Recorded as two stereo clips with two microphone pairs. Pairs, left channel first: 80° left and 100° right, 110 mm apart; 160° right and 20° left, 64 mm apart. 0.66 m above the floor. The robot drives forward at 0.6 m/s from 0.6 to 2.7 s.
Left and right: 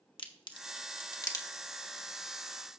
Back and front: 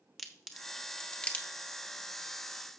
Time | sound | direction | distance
0.2 | a crack | 105° left | 0.9 m